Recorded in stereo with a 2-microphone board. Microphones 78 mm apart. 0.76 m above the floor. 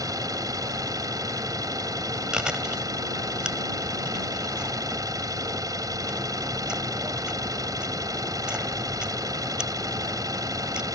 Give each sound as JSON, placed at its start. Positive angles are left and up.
{"t": 0.0, "sound": "an engine running", "side_deg": -50}
{"t": 2.3, "sound": "chewing", "side_deg": -10}